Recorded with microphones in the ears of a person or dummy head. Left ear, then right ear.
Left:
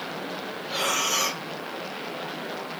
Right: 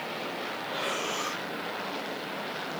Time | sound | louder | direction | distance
0.7 | breathing | left 8 dB | 60° left (ahead or behind) | 1.9 m